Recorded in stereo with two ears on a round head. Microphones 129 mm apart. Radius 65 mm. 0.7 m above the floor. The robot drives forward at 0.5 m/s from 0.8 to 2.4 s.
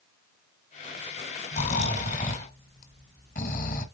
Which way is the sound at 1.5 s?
45° left (ahead or behind).